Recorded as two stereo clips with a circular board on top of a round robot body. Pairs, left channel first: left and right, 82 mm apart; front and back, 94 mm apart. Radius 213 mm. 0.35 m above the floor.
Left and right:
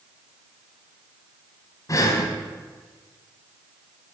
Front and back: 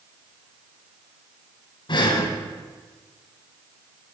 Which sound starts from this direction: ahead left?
Breathing, at 1.9 s.